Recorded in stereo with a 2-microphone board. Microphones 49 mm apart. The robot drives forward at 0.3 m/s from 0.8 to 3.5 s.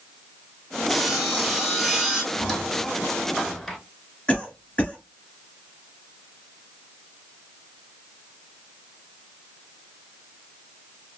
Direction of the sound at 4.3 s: 20° left (ahead or behind).